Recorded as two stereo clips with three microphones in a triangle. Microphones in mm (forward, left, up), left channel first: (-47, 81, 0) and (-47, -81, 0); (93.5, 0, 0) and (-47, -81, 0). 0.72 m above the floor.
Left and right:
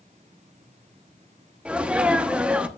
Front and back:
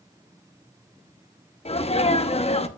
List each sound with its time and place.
1.6 s a sneeze: 10° right, 0.7 m